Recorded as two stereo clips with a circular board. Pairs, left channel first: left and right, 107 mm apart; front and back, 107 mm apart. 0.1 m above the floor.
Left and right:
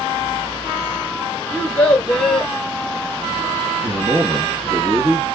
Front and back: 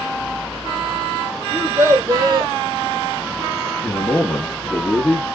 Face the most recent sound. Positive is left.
turn(degrees=-60)